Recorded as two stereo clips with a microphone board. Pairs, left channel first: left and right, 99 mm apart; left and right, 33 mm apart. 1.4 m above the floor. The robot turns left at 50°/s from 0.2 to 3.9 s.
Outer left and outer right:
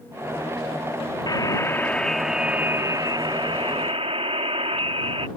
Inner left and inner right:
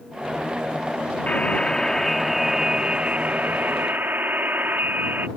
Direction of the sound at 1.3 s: 45° left.